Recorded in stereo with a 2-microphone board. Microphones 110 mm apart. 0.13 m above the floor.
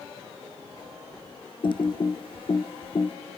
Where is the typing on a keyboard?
50° left (ahead or behind), 1.4 m.